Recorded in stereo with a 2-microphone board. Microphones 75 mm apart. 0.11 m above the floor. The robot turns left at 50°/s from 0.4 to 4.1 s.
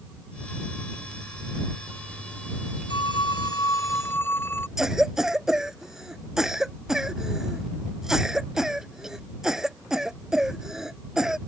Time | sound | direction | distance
2.9 | a phone ringing | 90° left | ?
4.8 | a cough | 5° right (ahead or behind) | ?